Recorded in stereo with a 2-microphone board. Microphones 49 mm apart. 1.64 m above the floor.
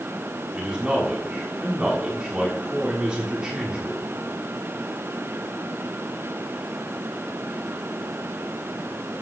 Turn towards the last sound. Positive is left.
turn(degrees=-15)  # may be behind; listen again after turning